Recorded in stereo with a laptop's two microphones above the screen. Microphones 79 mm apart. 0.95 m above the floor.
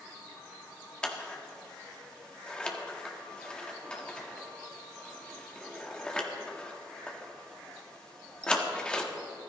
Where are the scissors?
10° left (ahead or behind), 1.4 m.